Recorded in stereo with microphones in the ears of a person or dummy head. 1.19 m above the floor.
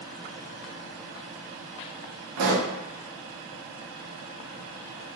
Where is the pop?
85° right, 0.6 m.